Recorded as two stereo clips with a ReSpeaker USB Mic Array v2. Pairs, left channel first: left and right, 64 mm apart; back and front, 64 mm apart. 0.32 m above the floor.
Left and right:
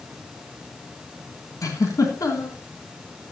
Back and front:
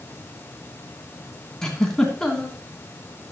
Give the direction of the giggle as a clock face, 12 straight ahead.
9 o'clock.